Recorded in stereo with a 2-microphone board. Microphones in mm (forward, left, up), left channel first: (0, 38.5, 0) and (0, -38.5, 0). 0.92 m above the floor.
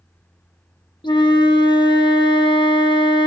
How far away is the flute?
About 0.7 m.